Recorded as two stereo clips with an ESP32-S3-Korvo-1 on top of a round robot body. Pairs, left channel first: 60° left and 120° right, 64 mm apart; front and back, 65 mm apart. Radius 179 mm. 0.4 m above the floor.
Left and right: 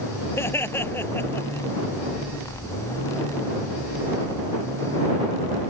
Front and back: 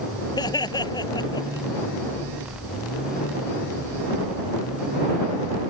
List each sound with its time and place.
0.4 s laughter: 5° left; by 1.7 s straight ahead